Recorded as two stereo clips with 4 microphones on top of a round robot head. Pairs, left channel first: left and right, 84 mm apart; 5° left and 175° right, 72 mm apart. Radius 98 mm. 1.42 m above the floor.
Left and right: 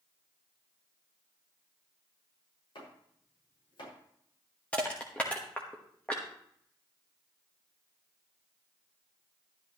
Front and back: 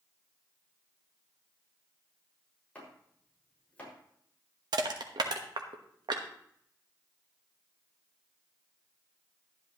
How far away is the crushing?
About 1.2 m.